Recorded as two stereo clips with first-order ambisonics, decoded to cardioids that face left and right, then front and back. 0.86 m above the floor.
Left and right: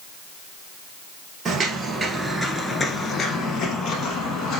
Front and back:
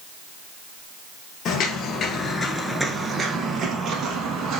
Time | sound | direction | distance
1.4 | footsteps | 30° right | 1.2 m